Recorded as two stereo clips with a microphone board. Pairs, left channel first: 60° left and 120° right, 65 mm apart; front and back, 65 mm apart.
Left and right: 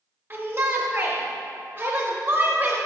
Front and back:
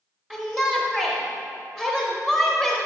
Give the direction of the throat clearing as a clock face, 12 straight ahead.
I don't hear throat clearing.